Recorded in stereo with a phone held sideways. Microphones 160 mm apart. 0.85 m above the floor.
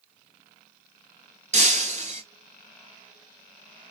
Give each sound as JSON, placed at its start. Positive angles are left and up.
{"t": 1.5, "sound": "breaking glass", "side_deg": -50, "distance_m": 1.2}